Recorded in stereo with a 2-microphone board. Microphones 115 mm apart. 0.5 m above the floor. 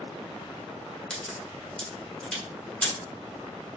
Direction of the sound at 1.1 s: 10° left (ahead or behind).